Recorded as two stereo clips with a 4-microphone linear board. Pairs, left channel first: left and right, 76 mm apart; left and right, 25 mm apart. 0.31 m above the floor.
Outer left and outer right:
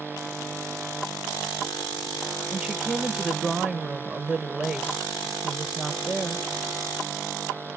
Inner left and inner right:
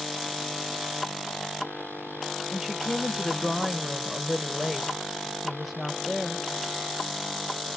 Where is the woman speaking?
10° right (ahead or behind), 0.9 m.